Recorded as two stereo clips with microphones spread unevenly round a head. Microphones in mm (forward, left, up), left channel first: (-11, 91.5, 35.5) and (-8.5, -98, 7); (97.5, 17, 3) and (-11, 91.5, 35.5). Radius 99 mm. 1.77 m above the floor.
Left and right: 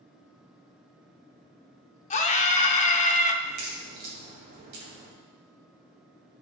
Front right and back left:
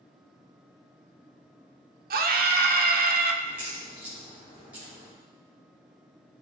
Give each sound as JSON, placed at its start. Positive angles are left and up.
{"t": 2.1, "sound": "a scream", "azimuth_deg": 145, "distance_m": 1.0}
{"t": 3.4, "sound": "a crack", "azimuth_deg": -130, "distance_m": 3.5}